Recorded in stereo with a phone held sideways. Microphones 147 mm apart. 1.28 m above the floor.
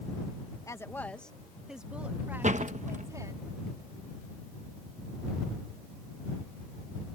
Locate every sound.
0.7 s a woman speaking: 20° left (ahead or behind); by 3.4 s 25° right (ahead or behind)
2.4 s a door slam: 55° right (ahead or behind)